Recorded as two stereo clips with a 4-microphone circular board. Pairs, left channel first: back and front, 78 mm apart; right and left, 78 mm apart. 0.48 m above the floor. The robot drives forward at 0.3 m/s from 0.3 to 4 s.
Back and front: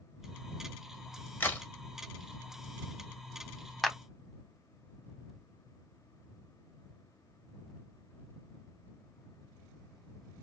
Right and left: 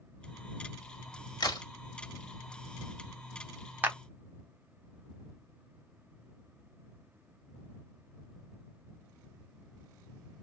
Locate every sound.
1.4 s a crack: 115° right, 1.5 m; by 1.6 s 120° right, 1.6 m
3.8 s a clap: 90° left, 0.8 m; by 4.0 s 100° left, 0.8 m